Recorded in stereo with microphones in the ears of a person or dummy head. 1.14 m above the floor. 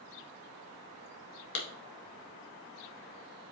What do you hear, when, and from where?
1.6 s a clap: 60° left (ahead or behind), 1.4 m